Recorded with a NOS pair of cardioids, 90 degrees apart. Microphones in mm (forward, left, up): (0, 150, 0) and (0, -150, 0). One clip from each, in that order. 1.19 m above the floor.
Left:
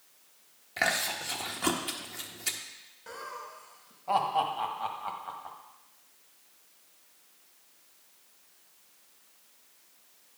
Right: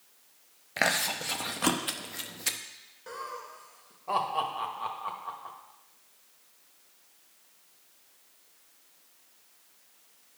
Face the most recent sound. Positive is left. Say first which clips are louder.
# right 2 dB
turn(degrees=0)